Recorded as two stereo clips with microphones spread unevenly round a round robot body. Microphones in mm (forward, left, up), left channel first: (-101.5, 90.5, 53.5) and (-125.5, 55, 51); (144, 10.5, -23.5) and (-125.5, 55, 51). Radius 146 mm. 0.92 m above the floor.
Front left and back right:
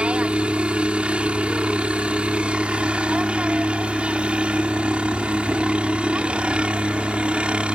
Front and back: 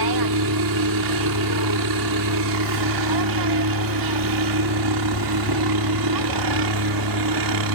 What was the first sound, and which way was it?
A helicopter, 175° left.